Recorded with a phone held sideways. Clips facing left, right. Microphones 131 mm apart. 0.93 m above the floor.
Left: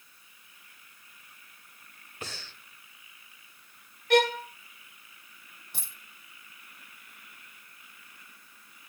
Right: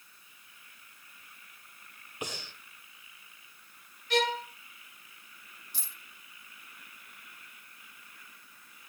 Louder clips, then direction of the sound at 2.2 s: Right 3 dB; 20° right (ahead or behind).